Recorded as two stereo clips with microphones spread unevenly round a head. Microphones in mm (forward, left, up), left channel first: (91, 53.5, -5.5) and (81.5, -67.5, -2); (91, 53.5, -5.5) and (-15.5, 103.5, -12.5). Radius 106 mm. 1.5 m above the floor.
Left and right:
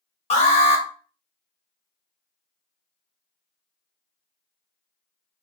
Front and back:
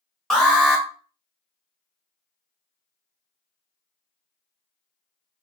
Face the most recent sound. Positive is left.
turn(degrees=65)